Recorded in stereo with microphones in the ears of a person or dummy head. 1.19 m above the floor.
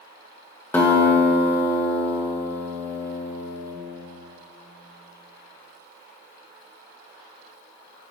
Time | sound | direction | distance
0.7 | a guitar | 10° left (ahead or behind) | 1.7 m